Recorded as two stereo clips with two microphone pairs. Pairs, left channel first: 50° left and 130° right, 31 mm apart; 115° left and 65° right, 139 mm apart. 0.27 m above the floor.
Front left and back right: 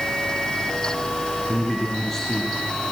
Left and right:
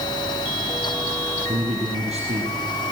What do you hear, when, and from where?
1.5 s a man speaking: 25° right, 6 m